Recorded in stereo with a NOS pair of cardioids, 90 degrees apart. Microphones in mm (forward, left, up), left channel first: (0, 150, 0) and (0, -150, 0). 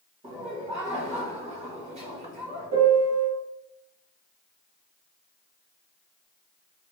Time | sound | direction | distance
0.2 | laughter | 20° right | 1.0 m
2.7 | a piano | 60° right | 0.9 m